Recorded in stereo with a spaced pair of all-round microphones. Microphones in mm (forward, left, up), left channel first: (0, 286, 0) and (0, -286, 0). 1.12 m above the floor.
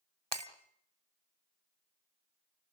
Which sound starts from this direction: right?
Breaking glass, at 0.3 s.